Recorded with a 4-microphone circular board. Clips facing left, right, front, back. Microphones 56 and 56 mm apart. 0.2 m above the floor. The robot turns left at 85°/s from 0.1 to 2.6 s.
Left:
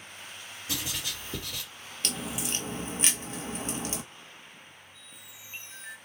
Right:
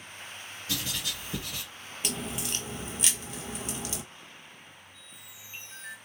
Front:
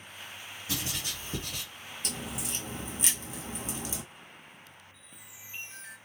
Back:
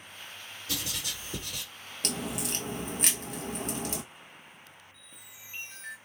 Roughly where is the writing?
Ahead left.